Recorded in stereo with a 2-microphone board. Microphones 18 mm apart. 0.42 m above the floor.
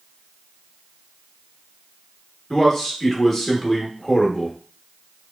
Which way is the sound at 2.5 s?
25° left (ahead or behind).